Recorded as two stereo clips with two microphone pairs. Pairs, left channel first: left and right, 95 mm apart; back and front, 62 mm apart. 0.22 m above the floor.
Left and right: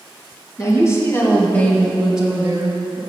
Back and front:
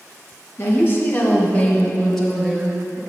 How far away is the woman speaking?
About 1.9 m.